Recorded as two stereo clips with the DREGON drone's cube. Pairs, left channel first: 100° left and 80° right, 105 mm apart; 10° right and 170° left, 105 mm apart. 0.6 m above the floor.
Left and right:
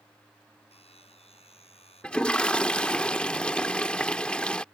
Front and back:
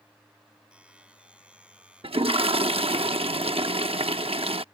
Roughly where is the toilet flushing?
Behind.